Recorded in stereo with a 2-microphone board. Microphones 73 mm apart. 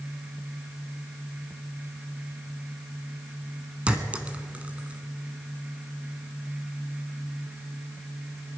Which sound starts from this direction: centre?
A clink, at 3.9 s.